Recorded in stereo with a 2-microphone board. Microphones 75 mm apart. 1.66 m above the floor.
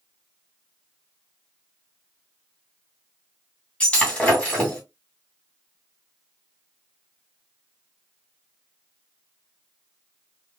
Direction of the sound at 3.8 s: 15° left (ahead or behind).